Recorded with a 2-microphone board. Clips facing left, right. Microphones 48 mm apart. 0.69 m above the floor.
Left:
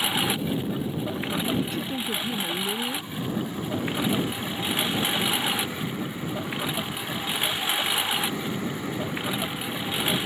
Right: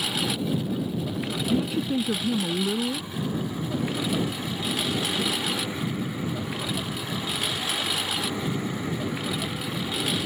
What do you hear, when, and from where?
0.0 s a lawn mower: 25° left (ahead or behind)
1.5 s a woman speaking: 10° right (ahead or behind)